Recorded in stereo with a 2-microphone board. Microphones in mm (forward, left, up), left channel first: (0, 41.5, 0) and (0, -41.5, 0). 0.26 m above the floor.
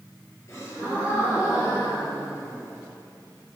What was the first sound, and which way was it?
A gasp, 35° left (ahead or behind).